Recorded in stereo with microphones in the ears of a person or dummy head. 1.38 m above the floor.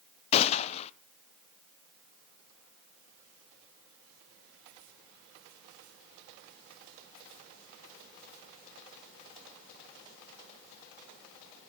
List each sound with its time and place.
0.3 s a gunshot: 35° left (ahead or behind), 0.5 m